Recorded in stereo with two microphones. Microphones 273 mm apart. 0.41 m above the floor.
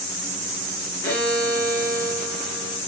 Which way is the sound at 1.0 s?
65° left (ahead or behind).